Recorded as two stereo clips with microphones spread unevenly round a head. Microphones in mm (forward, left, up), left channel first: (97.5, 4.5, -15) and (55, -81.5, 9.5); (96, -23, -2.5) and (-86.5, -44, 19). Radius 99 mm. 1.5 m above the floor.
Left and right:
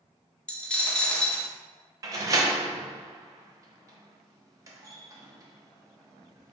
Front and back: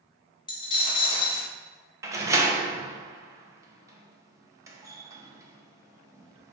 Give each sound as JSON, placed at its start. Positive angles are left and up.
{"t": 0.5, "sound": "a dropped coin", "azimuth_deg": -30, "distance_m": 0.8}
{"t": 2.0, "sound": "a door slam", "azimuth_deg": -115, "distance_m": 0.6}